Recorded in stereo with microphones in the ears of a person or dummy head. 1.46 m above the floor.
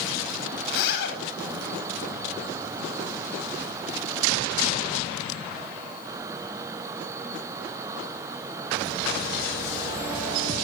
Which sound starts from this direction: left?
A zipper, at 0.7 s.